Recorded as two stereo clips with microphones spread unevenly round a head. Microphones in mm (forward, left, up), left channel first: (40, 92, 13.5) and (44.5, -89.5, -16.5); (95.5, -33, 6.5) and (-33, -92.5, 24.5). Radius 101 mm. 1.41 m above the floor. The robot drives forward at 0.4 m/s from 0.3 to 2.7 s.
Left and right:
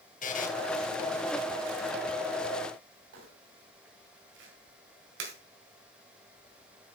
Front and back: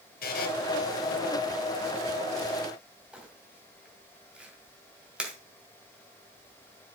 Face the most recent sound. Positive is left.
turn(degrees=-75)